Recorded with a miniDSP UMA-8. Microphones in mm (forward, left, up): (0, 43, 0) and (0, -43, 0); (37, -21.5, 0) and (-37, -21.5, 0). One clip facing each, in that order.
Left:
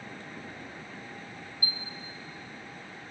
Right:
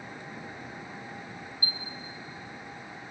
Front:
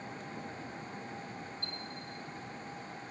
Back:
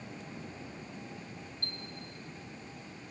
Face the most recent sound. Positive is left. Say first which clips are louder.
# even, front 1 dB
turn(degrees=-150)